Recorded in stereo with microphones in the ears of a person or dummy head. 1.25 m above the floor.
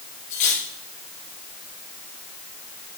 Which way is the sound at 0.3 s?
40° left (ahead or behind).